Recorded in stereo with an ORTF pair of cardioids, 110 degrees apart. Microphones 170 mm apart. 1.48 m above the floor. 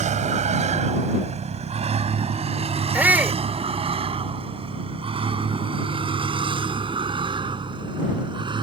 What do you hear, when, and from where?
0.0 s a vehicle: 45° right; by 8.6 s 30° right
2.9 s a shout: 10° right